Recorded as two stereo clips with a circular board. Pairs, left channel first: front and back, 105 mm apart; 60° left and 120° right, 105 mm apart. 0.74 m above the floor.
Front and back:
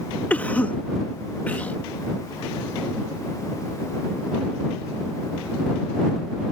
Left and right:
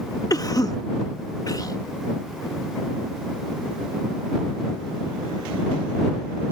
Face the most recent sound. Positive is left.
turn(degrees=65)